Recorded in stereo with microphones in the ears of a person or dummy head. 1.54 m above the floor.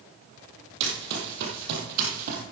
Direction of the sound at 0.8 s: 60° right (ahead or behind).